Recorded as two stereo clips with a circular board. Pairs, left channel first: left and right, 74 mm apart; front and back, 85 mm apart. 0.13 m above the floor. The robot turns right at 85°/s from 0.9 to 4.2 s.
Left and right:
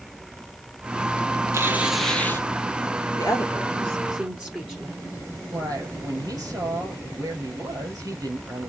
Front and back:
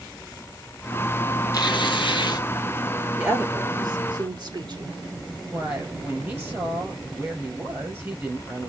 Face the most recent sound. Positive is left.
turn(degrees=-120)